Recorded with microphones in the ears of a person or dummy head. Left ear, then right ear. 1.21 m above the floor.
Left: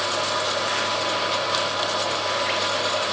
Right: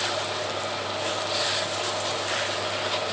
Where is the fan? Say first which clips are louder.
Left 4 dB; 55° left (ahead or behind), 5.5 m.